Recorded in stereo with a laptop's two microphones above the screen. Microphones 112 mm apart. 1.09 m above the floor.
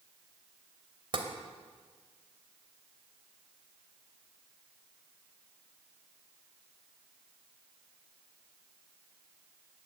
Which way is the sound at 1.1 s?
45° right (ahead or behind).